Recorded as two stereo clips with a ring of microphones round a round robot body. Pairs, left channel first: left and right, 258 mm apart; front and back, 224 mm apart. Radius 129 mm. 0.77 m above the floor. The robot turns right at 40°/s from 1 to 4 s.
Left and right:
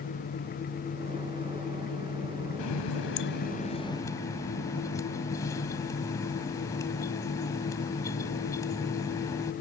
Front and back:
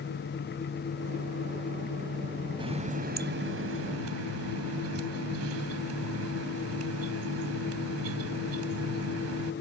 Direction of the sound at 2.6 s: 110° left.